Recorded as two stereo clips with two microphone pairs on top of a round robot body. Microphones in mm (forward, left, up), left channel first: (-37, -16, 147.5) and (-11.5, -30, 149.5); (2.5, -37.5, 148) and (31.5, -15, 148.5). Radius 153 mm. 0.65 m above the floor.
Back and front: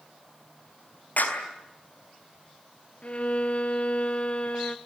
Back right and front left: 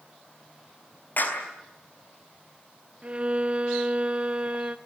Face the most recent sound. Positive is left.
turn(degrees=100)